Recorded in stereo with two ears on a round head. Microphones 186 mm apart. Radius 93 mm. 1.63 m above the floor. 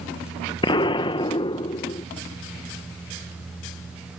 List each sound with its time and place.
0.6 s an explosion: 20° left (ahead or behind)